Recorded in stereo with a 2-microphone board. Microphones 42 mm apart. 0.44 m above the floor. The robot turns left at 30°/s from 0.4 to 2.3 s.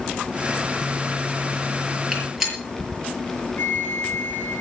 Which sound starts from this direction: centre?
A gunshot, at 2.1 s.